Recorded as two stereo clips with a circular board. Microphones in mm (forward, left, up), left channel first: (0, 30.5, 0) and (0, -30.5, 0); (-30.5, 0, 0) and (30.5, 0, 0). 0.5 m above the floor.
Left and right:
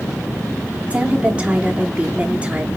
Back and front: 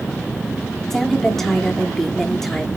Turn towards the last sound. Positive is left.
turn(degrees=-105)